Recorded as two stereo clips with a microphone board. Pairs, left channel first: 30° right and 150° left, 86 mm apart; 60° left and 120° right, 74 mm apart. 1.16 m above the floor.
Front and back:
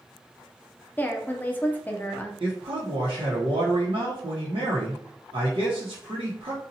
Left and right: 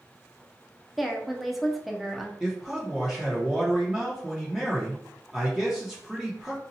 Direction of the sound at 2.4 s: 160° left.